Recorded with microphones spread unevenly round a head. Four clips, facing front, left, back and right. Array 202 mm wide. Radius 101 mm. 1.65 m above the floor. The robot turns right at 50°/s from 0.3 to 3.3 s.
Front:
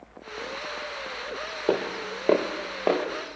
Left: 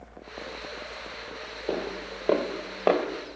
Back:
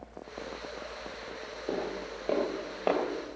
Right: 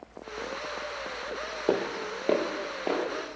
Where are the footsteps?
35° right, 2.5 m; by 3.0 s 60° left, 1.9 m.